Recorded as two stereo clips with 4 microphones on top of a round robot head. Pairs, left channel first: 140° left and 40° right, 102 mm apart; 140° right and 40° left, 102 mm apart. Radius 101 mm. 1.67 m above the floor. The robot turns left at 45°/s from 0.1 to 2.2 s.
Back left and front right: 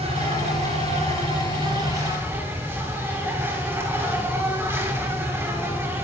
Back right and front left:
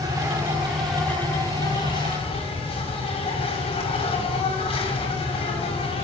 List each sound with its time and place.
0.0 s an insect: 15° right, 5.5 m; by 6.0 s 110° right, 5.5 m